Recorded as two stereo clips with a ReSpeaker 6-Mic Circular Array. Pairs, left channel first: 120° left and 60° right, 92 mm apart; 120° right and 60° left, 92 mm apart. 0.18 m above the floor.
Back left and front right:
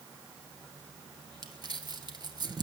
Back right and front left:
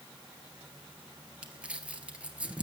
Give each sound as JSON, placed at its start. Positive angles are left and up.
{"t": 1.4, "sound": "crumpling", "azimuth_deg": -15, "distance_m": 2.0}